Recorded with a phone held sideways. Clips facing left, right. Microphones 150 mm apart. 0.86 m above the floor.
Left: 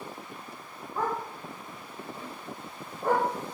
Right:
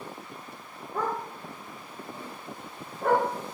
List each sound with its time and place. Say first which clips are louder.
0.9 s a dog barking: even; 75° right (ahead or behind), 4.5 m; by 3.3 s 65° right (ahead or behind), 3 m